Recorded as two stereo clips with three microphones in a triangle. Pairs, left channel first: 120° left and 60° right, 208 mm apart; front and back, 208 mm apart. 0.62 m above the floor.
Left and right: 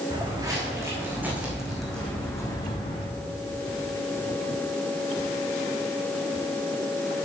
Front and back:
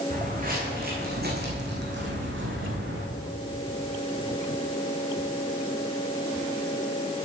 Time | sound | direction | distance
0.1 | footsteps | 130° right | 3 m